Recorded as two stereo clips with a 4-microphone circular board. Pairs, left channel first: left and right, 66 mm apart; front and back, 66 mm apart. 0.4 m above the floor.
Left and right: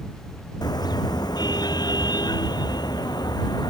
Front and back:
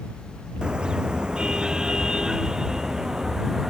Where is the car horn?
100° left; by 3.7 s 95° left.